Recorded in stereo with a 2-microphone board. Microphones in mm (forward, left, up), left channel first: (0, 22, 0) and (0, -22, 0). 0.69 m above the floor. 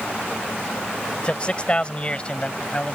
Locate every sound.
1.2 s a man speaking: 25° left (ahead or behind)